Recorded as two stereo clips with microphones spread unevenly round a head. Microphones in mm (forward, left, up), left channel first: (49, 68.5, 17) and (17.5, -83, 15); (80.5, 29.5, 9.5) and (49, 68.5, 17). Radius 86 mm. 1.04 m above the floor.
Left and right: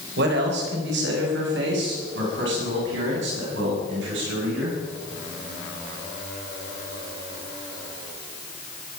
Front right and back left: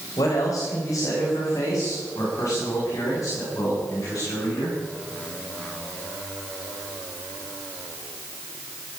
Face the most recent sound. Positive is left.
turn(degrees=-110)